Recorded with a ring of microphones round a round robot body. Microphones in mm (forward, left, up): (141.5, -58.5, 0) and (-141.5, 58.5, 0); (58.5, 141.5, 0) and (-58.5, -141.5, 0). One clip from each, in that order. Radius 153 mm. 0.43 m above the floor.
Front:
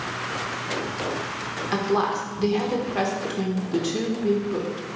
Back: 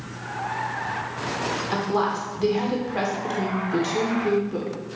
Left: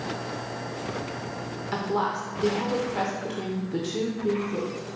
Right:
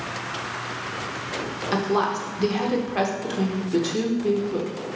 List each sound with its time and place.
1.7 s a woman speaking: 95° right, 0.8 m